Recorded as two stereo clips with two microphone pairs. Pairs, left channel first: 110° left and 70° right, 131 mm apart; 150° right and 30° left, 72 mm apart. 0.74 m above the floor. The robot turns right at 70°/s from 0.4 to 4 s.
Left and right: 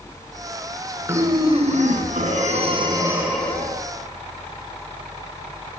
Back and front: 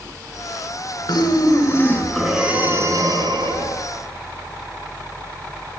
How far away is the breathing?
About 5.5 m.